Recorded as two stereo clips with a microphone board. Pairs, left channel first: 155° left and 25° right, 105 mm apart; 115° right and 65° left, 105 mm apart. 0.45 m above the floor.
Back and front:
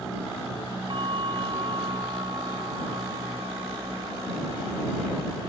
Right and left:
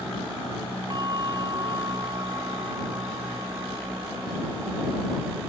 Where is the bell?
15° left.